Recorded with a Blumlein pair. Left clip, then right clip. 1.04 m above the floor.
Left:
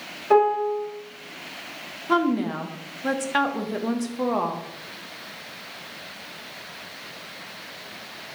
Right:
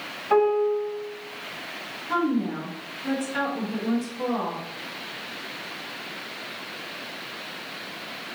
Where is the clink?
No clink in this recording.